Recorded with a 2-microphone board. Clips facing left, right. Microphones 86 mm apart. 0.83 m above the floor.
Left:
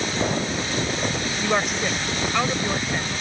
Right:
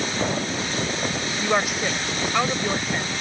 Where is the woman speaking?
5° right (ahead or behind).